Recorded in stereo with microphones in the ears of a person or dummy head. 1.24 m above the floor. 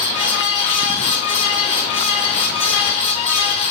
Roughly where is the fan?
Left.